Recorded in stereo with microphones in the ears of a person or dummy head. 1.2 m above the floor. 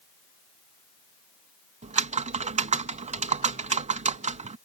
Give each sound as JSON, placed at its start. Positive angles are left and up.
{"t": 1.8, "sound": "typing on a keyboard", "side_deg": -30}